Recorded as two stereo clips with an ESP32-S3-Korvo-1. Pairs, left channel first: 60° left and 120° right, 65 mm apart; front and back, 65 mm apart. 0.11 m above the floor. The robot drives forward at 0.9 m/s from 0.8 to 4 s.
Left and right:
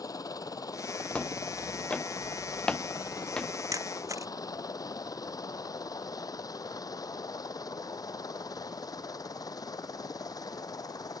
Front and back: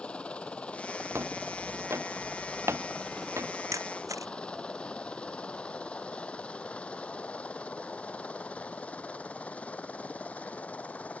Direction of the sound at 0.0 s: 70° left.